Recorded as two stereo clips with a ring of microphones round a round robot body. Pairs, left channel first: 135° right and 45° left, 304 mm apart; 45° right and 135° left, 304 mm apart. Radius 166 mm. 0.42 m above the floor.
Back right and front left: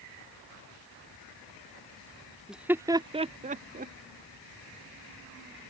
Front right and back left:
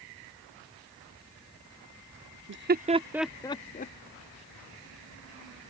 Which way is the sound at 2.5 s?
130° left.